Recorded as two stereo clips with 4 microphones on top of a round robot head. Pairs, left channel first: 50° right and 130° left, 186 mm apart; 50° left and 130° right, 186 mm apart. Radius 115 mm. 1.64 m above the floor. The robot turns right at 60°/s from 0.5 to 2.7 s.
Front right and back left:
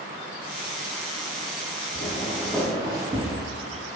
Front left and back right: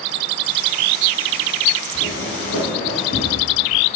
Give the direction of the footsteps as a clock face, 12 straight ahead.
12 o'clock.